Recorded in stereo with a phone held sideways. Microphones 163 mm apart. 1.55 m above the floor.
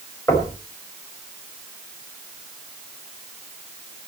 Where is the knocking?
15° left (ahead or behind), 5 m.